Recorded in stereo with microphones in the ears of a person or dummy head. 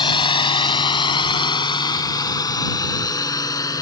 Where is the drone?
30° left (ahead or behind); by 3.8 s 20° left (ahead or behind).